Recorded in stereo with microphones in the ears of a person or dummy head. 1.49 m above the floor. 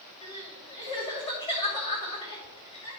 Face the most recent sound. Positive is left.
turn(degrees=25)  # may be behind; listen again after turning